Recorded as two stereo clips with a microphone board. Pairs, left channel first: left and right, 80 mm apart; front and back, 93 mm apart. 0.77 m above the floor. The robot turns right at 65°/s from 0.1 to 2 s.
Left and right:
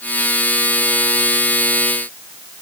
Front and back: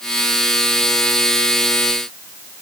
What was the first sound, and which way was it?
Only background noise.